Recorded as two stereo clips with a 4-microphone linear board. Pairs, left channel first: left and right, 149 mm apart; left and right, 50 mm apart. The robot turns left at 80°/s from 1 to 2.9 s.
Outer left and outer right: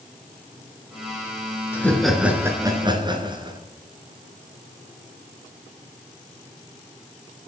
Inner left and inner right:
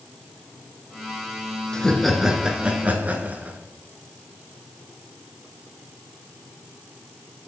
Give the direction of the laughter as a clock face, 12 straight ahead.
11 o'clock.